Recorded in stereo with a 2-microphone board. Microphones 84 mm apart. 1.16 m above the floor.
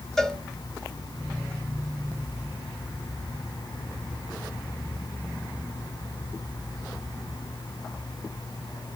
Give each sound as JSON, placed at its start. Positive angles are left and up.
{"t": 0.2, "sound": "a cowbell", "side_deg": 5, "distance_m": 1.6}